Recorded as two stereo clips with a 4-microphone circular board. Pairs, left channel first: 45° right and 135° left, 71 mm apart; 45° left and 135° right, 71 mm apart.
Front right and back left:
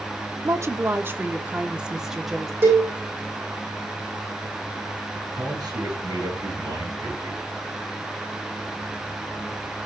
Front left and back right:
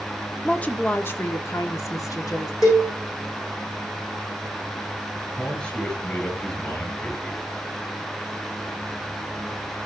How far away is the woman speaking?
About 1.4 m.